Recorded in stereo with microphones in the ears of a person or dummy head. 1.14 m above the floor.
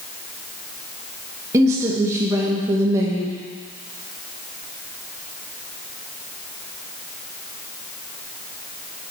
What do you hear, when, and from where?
1.5 s a woman speaking: 20° right (ahead or behind), 1.0 m